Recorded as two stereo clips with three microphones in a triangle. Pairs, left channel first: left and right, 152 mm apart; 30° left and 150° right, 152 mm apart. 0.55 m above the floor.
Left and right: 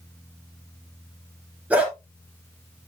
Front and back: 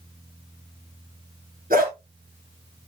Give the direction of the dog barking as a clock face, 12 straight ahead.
6 o'clock.